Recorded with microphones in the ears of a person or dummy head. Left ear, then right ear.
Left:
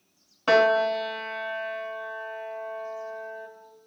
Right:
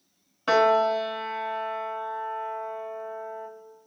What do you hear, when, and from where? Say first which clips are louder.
0.5 s a piano: even; 5° left (ahead or behind), 0.8 m